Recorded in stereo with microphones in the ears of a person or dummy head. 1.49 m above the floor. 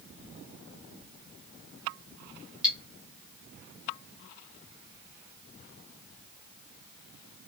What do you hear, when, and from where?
2.6 s cutlery clinking: centre (ahead or behind), 1.2 m